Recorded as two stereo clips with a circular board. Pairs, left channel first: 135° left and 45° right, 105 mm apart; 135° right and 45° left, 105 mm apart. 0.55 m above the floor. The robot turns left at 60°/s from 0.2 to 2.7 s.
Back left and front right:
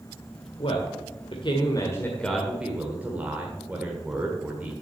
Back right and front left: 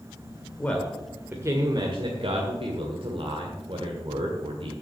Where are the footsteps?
I don't hear footsteps.